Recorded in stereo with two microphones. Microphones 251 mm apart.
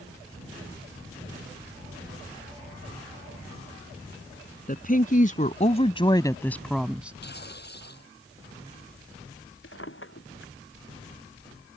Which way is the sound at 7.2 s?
40° left (ahead or behind).